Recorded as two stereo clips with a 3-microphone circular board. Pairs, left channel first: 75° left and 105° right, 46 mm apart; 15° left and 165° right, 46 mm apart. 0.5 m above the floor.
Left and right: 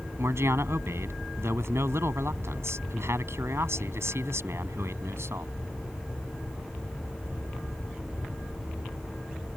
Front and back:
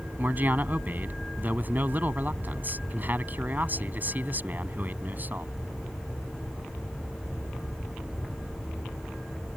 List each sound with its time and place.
0.2 s a man speaking: 115° right